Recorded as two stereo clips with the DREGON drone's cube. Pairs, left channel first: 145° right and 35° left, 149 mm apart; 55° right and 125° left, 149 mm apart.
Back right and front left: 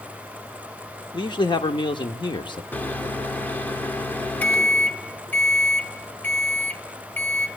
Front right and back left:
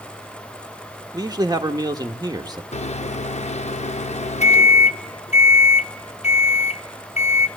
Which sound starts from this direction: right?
A microwave, at 2.7 s.